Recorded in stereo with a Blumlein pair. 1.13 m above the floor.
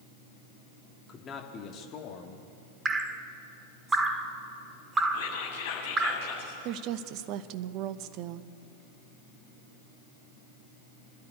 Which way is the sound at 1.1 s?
20° left.